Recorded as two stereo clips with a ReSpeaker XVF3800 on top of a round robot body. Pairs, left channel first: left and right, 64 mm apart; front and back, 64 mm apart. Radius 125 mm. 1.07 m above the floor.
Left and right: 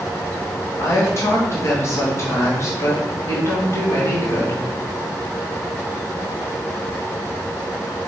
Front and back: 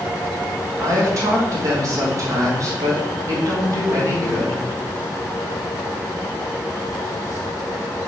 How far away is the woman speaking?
About 2.0 m.